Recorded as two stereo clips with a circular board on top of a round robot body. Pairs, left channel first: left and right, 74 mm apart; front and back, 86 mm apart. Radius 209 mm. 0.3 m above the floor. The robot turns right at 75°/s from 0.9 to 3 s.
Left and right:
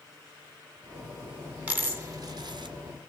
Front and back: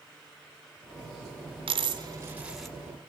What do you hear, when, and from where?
1.7 s a dropped coin: 165° right, 2.5 m; by 2.8 s 80° right, 2.5 m